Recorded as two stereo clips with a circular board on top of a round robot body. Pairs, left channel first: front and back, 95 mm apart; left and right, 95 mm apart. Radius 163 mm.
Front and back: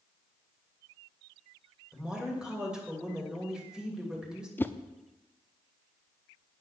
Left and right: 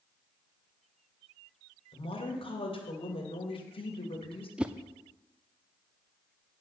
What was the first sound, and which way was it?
A woman speaking, 95° left.